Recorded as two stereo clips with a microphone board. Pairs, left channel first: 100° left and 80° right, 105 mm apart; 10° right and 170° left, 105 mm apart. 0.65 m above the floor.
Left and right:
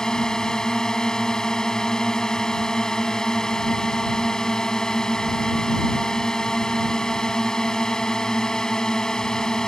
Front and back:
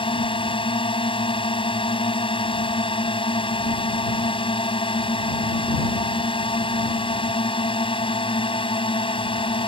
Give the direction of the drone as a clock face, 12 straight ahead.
11 o'clock.